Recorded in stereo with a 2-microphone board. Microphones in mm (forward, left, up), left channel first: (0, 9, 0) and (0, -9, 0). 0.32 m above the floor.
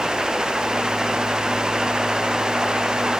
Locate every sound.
Only background noise.